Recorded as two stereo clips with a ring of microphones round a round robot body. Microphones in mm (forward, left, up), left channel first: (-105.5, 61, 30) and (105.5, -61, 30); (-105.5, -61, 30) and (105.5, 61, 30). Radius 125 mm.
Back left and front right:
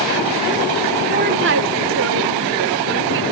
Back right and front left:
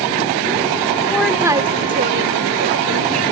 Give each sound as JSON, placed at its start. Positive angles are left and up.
{"t": 1.1, "sound": "a woman speaking", "azimuth_deg": -70}